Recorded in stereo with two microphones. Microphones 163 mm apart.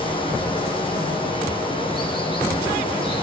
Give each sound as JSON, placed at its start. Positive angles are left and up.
{"t": 0.0, "sound": "running water", "side_deg": 35, "distance_m": 5.5}